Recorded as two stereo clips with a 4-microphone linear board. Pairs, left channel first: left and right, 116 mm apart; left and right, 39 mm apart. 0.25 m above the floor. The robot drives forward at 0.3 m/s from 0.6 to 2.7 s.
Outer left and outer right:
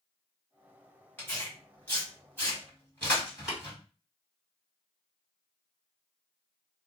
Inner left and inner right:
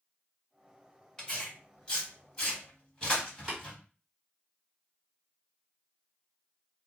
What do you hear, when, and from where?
1.2 s tearing paper: 20° left (ahead or behind), 1.6 m; by 3.8 s 15° left (ahead or behind), 1.9 m
3.5 s tapping: 5° right (ahead or behind), 1.9 m